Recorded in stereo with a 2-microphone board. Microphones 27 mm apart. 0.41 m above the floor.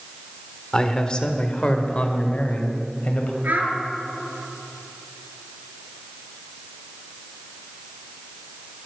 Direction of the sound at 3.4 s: 85° right.